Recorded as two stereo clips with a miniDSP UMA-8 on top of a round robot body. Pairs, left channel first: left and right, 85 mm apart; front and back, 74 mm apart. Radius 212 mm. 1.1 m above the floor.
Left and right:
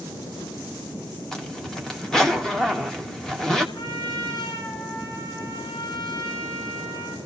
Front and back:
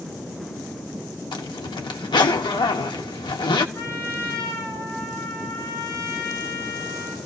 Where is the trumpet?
65° left, 9.5 m.